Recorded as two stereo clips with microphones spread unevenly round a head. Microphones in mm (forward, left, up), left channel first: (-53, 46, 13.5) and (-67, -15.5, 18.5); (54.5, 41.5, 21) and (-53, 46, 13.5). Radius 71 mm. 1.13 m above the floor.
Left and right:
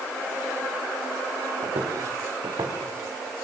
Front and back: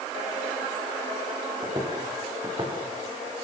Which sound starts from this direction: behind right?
Footsteps, at 1.6 s.